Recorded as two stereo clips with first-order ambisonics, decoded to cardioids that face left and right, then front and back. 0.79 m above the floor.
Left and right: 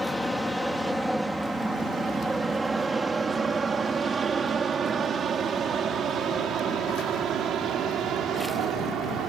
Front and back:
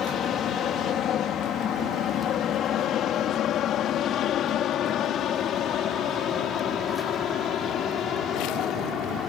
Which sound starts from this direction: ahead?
An aircraft, at 0.0 s.